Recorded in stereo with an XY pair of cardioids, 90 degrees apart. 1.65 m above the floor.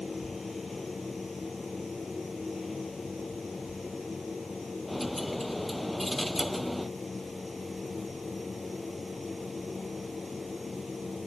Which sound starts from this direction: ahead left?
A machine running, at 0.0 s.